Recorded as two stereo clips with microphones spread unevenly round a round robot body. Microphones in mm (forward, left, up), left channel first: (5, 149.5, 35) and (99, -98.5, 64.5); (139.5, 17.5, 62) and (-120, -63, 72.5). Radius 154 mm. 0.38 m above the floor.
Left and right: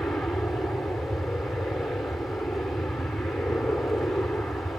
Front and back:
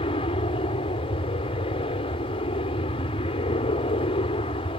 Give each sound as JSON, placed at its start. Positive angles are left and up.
{"t": 0.0, "sound": "an aircraft", "azimuth_deg": 35}